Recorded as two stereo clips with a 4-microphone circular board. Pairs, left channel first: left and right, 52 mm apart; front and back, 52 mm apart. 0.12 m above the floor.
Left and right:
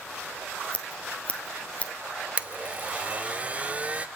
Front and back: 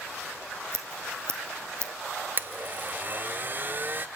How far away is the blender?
About 0.8 m.